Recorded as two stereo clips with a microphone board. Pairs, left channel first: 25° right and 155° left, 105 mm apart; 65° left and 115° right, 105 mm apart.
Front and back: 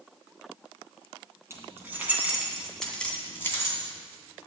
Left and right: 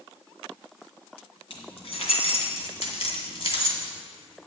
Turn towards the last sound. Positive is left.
turn(degrees=30)